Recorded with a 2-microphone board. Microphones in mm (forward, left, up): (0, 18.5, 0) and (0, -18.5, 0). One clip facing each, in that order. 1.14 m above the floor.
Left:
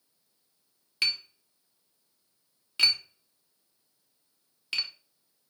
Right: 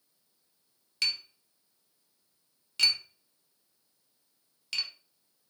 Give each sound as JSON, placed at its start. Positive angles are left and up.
{"t": 1.0, "sound": "tapping", "side_deg": 20, "distance_m": 1.5}